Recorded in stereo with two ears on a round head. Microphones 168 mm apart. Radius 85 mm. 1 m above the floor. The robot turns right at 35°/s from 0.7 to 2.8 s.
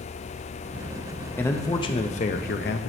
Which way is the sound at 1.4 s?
10° left.